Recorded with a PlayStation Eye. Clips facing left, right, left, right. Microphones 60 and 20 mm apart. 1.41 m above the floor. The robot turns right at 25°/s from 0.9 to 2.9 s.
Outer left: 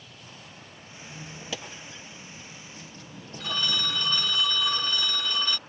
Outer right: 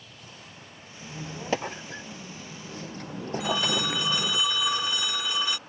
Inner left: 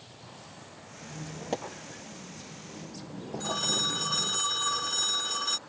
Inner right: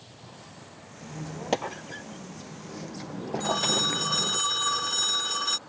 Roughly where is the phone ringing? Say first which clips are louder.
Outer right 2 dB, inner right 3 dB; centre.